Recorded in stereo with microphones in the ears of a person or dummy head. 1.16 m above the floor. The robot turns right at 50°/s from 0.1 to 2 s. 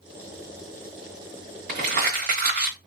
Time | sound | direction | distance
1.7 | crumpling | 45° right (ahead or behind) | 1.2 m